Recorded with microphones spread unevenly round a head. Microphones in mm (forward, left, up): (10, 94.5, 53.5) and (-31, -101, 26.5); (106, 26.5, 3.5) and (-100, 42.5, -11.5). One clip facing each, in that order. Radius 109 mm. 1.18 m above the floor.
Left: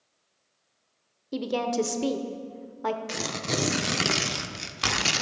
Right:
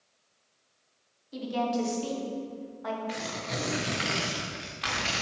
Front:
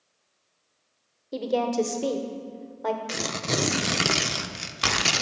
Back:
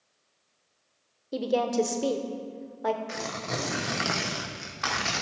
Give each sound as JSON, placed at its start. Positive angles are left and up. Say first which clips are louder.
{"t": 1.3, "sound": "a woman speaking", "louder": "left 3 dB, front 1 dB", "azimuth_deg": 90, "distance_m": 0.8}
{"t": 3.1, "sound": "tearing paper", "louder": "left 4 dB, front 5 dB", "azimuth_deg": 40, "distance_m": 0.5}